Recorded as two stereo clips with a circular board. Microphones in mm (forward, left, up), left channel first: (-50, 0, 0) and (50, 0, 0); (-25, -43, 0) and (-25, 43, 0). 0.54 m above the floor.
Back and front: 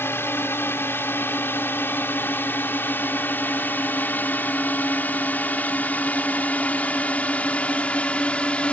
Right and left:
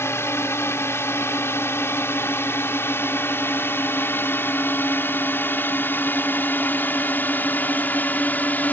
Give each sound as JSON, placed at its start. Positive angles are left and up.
{"t": 0.0, "sound": "a drone", "azimuth_deg": -130}